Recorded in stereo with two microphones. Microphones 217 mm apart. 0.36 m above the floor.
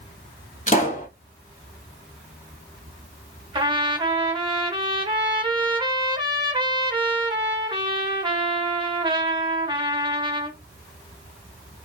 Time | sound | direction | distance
0.7 | a pop | 35° left (ahead or behind) | 1.5 m
3.5 | a trumpet | 20° right (ahead or behind) | 1.0 m